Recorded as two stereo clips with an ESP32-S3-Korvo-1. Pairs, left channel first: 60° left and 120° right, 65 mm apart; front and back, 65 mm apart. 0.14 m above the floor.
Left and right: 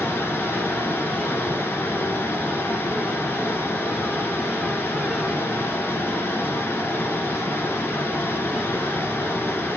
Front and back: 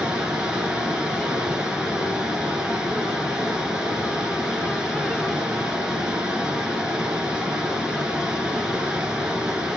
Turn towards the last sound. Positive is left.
turn(degrees=105)